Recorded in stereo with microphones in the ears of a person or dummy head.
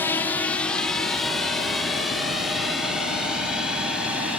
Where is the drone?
10° left (ahead or behind); by 4.4 s 5° right (ahead or behind).